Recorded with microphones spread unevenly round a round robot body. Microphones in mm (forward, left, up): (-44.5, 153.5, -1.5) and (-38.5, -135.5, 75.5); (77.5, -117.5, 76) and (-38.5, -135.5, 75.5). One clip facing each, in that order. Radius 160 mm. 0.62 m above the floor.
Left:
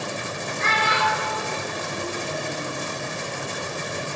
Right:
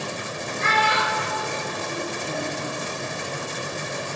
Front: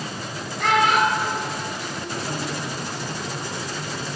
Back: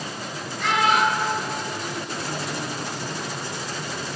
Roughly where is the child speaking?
Ahead right.